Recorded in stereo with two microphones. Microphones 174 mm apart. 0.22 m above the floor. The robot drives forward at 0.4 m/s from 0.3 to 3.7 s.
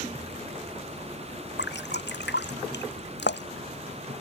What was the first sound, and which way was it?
Dripping, 85° left.